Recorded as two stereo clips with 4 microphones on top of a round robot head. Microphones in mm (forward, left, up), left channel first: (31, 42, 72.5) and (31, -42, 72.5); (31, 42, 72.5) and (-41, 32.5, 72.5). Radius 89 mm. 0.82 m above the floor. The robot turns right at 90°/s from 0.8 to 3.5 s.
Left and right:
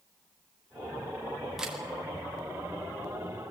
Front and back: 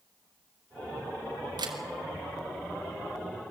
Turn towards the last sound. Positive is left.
turn(degrees=0)